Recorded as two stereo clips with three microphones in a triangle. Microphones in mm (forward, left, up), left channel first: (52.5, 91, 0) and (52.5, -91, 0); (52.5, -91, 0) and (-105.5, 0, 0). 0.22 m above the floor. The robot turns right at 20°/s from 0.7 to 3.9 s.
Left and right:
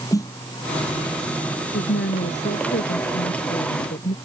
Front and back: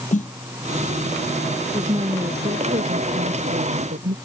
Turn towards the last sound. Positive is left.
turn(degrees=125)